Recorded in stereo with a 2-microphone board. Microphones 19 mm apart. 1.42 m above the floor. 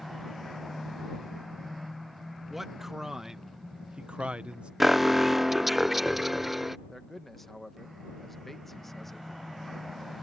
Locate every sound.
2.5 s a man speaking: 20° right (ahead or behind); by 4.7 s 65° right (ahead or behind)
4.8 s an alarm: 5° right (ahead or behind)
6.9 s a man speaking: 15° left (ahead or behind)